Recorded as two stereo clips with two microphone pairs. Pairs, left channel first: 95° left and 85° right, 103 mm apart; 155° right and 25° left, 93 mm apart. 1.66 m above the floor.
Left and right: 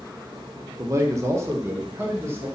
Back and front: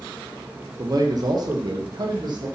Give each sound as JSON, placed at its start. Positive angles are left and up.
{"t": 0.8, "sound": "a man speaking", "azimuth_deg": -20, "distance_m": 0.9}